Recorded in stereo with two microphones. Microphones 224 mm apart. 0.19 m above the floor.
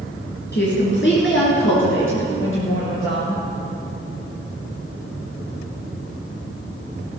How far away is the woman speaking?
About 3 m.